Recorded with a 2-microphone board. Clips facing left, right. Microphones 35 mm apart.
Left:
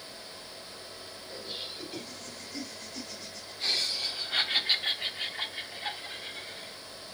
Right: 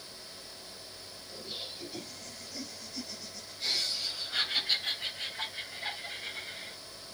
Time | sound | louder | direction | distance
1.3 | laughter | left 2 dB | 50° left (ahead or behind) | 4.5 m